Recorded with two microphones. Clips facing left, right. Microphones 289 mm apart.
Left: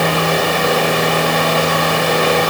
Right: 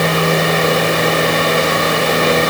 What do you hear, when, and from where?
Only background noise.